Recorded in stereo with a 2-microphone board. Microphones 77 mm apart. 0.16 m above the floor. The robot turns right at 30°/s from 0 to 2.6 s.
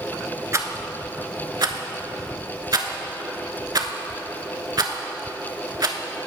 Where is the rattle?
40° right (ahead or behind), 0.5 m; by 6.0 s 60° right (ahead or behind), 0.5 m.